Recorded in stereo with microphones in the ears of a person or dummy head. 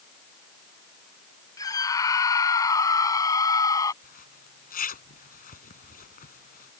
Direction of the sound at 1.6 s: 15° left (ahead or behind).